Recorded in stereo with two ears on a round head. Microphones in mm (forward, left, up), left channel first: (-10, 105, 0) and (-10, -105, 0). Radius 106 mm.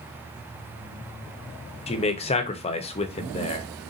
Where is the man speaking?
25° left (ahead or behind), 0.7 m.